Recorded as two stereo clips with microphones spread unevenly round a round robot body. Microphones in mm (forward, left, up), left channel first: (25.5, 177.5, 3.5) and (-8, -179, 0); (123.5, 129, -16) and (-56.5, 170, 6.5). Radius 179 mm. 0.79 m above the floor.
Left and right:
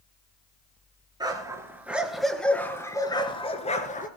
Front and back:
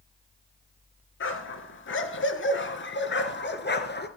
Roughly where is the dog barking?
Ahead.